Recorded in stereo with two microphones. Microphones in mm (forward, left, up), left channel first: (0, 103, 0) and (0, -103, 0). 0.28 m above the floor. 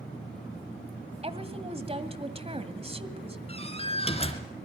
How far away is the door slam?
About 2.5 m.